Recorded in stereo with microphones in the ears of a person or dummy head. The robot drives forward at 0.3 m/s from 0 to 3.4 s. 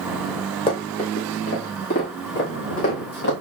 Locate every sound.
0.7 s running footsteps: 30° left (ahead or behind), 2.0 m; by 3.3 s 60° left (ahead or behind), 3.5 m